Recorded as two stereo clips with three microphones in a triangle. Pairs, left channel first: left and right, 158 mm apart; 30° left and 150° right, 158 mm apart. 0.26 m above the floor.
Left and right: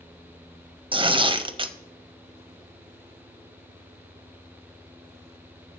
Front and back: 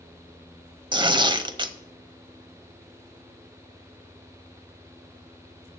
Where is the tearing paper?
115° right, 0.6 m.